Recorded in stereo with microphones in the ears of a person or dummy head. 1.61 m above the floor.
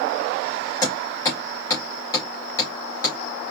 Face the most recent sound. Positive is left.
turn(degrees=20)  # may be behind; listen again after turning